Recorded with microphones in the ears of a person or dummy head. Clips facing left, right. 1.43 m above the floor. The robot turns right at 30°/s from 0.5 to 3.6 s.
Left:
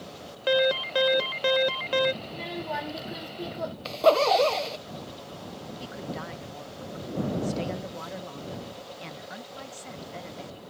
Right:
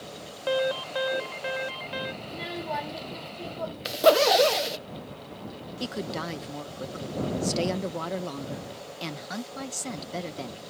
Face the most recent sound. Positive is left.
turn(degrees=-55)  # may be behind; listen again after turning